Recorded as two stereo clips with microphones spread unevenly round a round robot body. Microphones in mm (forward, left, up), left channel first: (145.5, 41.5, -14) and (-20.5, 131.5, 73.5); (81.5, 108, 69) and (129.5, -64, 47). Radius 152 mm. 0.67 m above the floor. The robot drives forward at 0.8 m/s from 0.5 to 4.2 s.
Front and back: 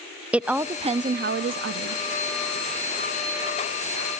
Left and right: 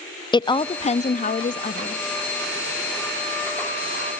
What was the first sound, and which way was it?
A woman speaking, 40° left.